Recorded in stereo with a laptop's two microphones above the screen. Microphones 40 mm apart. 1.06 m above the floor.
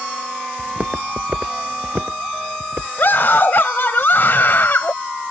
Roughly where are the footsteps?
Right.